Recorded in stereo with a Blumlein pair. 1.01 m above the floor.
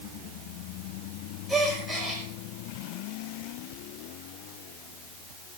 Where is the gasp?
10° right, 5 m.